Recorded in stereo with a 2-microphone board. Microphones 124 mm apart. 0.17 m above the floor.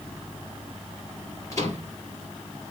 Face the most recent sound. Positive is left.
turn(degrees=25)  # may be behind; listen again after turning